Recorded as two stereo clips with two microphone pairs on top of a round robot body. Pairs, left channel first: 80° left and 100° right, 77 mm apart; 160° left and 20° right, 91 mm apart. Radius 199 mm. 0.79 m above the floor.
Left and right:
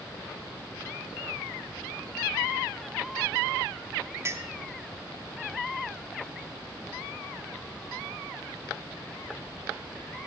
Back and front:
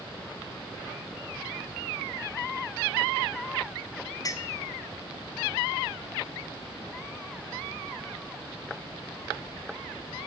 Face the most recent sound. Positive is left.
turn(degrees=-150)